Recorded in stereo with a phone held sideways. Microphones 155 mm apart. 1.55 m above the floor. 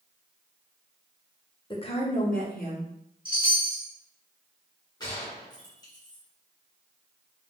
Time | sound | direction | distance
1.7 | a woman speaking | 30° left (ahead or behind) | 0.7 m
3.2 | a chime | 35° right (ahead or behind) | 1.1 m
5.0 | a gunshot | 25° left (ahead or behind) | 1.0 m